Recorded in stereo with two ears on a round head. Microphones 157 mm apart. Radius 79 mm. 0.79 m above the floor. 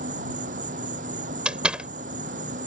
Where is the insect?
50° right (ahead or behind).